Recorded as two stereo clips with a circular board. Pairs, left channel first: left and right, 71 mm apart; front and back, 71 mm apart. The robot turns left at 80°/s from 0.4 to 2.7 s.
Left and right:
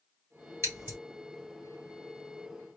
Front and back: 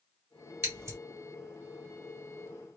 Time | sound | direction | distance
0.6 | scissors | 135° right | 1.7 m